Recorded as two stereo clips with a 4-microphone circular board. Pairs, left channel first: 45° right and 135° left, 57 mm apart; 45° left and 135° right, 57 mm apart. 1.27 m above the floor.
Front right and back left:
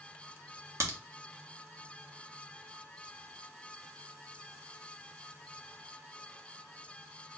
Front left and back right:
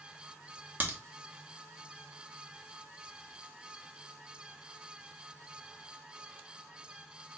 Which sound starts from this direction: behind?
A crack, at 0.8 s.